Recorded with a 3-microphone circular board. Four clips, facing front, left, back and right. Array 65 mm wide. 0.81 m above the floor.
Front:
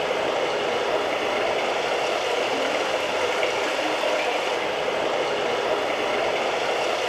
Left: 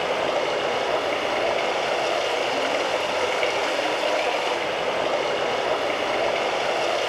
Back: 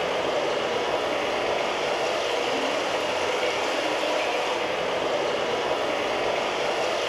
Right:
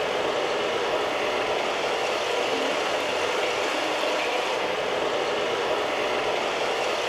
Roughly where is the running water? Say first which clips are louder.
Left 2 dB, front 1 dB; ahead left.